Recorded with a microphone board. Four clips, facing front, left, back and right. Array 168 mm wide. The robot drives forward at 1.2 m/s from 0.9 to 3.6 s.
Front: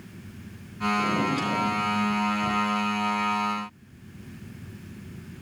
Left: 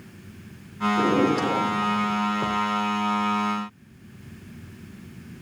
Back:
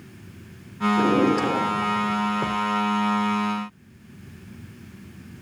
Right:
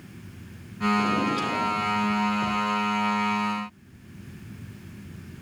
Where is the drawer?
140° left, 3 m; by 2.6 s 155° left, 5 m.